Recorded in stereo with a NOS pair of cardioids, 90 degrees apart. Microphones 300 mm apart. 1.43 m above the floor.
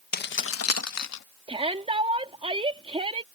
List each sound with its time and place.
0.1 s keys jangling: 30° left; by 1.2 s 65° left
1.5 s a shout: 20° right